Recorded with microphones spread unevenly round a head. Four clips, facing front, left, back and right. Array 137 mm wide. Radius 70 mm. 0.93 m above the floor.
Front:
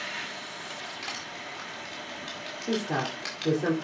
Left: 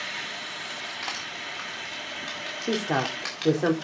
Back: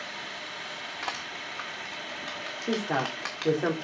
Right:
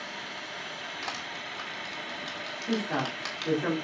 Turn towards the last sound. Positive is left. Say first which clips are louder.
# left 4 dB, back 1 dB
turn(degrees=115)